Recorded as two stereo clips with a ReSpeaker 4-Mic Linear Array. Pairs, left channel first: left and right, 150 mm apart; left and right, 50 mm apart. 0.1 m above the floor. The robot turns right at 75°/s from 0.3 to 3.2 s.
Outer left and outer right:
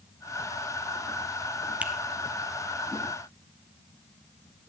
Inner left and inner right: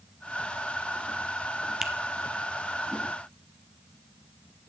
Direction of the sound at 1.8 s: 10° right (ahead or behind).